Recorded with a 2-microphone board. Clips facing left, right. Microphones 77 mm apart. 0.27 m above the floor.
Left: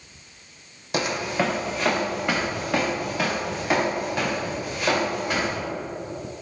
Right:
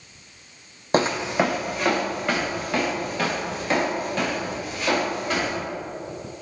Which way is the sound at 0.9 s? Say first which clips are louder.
Right 4 dB; 40° right (ahead or behind).